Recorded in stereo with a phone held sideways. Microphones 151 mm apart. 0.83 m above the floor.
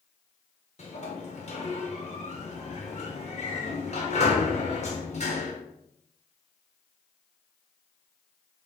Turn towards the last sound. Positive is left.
turn(degrees=45)  # may be behind; listen again after turning